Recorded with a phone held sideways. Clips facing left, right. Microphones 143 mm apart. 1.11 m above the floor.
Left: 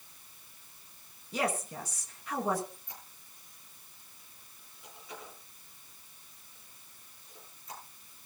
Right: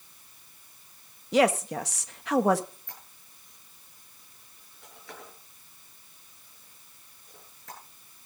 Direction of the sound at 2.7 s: 75° right (ahead or behind).